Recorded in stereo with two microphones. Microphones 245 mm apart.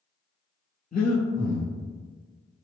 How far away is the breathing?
About 0.7 m.